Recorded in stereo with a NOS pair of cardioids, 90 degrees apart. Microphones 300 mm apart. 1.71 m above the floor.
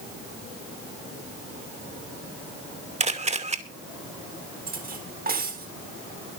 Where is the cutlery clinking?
30° right, 3.5 m.